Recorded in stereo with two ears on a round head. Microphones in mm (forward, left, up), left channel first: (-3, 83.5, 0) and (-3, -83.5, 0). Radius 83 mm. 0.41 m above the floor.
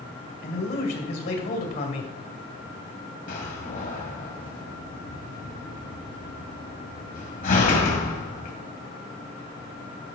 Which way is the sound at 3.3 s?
45° left (ahead or behind).